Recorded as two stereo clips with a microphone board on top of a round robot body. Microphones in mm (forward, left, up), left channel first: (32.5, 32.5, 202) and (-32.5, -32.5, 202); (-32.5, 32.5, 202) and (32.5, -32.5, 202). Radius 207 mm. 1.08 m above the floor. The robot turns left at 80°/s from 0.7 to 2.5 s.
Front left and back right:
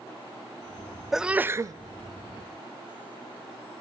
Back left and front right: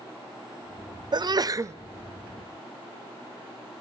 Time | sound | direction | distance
1.1 | a sneeze | 45° right | 0.5 m